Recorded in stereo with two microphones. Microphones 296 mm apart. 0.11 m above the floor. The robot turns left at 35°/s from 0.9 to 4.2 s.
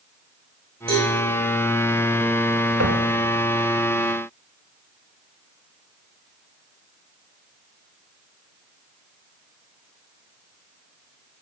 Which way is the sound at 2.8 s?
55° right (ahead or behind).